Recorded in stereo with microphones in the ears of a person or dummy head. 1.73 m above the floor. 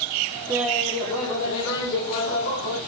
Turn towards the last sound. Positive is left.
turn(degrees=60)  # may be behind; listen again after turning